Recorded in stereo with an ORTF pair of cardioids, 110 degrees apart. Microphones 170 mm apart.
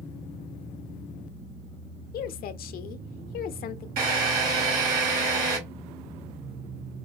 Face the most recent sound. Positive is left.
turn(degrees=-70)